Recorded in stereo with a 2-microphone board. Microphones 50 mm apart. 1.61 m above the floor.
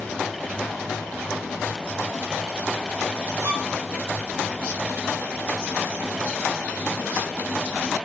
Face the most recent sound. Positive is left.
turn(degrees=-60)  # may be behind; listen again after turning